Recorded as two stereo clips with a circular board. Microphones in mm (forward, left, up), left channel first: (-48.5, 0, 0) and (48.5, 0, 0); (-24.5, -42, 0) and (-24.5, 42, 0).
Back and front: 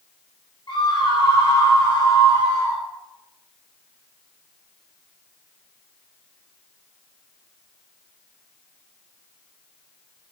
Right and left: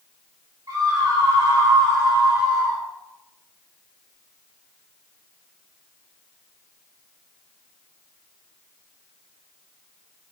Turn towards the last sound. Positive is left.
turn(degrees=115)